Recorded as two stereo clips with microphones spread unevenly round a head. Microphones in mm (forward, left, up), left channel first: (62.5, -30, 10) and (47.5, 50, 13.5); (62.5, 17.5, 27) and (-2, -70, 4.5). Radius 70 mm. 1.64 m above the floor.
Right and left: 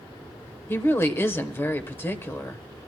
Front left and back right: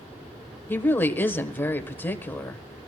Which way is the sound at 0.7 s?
20° right.